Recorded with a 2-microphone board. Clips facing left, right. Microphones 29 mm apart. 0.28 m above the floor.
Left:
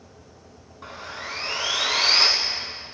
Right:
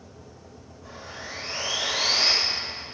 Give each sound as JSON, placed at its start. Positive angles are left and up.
{"t": 0.8, "sound": "sawing", "side_deg": 70, "distance_m": 1.2}